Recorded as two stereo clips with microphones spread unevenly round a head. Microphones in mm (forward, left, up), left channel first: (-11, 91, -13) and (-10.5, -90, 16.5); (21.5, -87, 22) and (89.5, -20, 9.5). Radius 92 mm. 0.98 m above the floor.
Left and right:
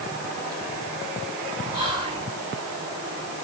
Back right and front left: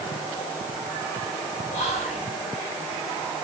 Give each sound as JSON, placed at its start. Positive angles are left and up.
{"t": 1.7, "sound": "whispering", "azimuth_deg": -155, "distance_m": 5.5}